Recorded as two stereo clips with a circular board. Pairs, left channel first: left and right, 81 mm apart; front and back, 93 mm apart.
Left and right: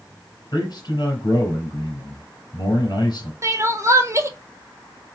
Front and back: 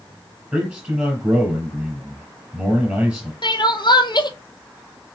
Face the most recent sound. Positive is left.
turn(degrees=-35)